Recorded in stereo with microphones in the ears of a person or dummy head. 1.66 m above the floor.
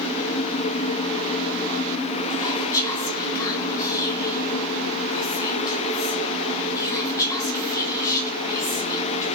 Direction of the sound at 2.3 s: 15° left (ahead or behind).